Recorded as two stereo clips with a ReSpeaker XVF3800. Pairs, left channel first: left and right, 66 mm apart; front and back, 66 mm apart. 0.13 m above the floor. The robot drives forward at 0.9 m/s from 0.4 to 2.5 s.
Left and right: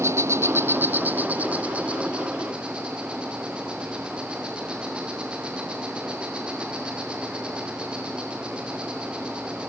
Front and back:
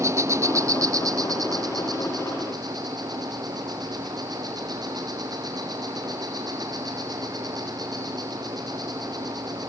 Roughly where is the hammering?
I don't hear hammering.